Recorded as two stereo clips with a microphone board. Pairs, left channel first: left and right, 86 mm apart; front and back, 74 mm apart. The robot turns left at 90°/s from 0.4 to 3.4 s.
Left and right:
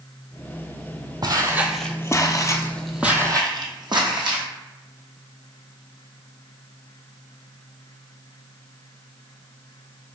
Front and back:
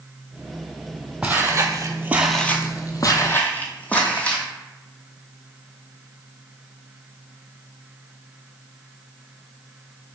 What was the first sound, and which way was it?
Footsteps, 110° right.